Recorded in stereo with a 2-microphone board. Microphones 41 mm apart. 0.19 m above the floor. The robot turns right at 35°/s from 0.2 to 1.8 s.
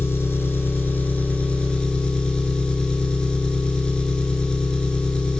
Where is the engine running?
100° left, 0.8 m; by 5.4 s 160° left, 0.8 m.